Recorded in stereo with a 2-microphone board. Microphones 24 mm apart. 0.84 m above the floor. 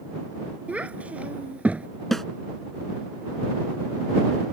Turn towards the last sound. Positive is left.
turn(degrees=10)  # may be behind; listen again after turning